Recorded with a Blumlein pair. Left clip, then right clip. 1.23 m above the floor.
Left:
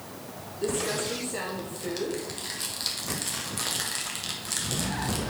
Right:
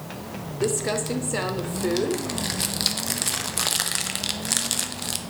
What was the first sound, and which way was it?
Crumpling, 25° right.